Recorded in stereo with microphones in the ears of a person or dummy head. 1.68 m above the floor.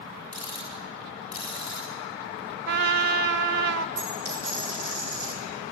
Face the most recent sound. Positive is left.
turn(degrees=-60)  # may be behind; listen again after turning